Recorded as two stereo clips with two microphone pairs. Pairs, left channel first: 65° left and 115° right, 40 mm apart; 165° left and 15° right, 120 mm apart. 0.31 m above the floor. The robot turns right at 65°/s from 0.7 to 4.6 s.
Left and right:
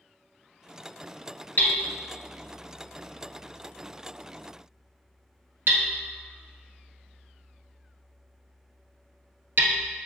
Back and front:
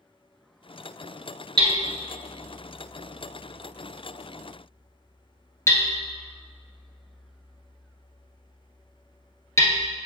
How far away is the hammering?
About 1.1 m.